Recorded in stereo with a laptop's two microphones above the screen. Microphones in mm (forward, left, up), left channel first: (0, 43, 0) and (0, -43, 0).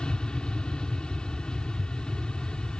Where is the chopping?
I don't hear chopping.